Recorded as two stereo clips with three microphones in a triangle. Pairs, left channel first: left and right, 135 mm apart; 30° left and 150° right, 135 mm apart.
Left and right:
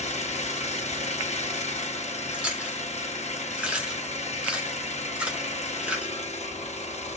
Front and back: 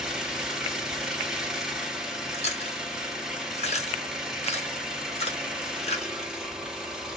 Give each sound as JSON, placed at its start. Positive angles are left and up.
{"t": 0.0, "sound": "an engine running", "azimuth_deg": 125, "distance_m": 1.1}
{"t": 2.3, "sound": "chewing", "azimuth_deg": -10, "distance_m": 1.9}